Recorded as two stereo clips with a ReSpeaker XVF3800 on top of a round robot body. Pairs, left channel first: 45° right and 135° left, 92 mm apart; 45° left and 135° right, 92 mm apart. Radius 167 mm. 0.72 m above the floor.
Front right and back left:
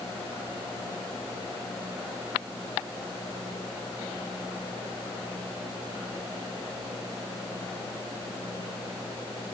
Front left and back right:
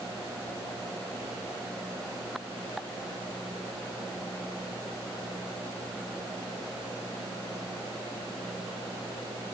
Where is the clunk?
No clunk in this recording.